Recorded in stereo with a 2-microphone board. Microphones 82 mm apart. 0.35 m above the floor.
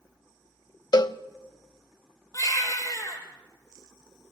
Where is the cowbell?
55° left (ahead or behind), 0.6 m.